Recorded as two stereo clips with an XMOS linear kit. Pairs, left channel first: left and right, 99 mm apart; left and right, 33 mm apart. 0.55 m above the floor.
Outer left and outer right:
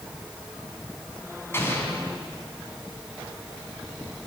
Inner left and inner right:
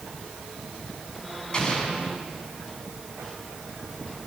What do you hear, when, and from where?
1.5 s an explosion: 25° left (ahead or behind), 4.5 m